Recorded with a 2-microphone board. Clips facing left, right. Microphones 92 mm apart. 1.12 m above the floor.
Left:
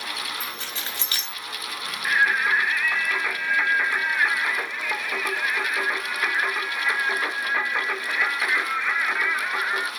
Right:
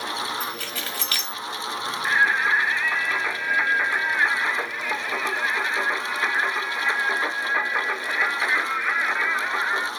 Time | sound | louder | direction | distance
0.4 | keys jangling | right 3 dB | 25° left (ahead or behind) | 1.7 m
2.0 | singing | even | 10° right (ahead or behind) | 0.7 m